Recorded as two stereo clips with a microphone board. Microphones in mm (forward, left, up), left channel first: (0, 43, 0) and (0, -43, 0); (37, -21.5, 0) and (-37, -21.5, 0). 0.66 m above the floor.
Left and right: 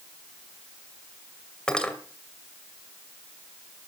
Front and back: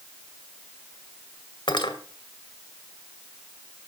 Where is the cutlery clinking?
10° left, 2 m.